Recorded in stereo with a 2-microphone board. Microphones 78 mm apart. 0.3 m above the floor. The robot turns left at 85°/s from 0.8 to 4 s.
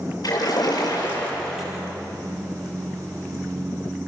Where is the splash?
65° left, 7.5 m; by 1.8 s 20° right, 7.5 m.